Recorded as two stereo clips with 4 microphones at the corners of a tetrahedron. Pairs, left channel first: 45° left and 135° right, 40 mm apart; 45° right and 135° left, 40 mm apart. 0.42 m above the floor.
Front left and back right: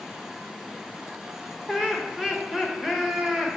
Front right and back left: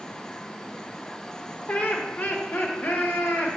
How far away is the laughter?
About 1.0 m.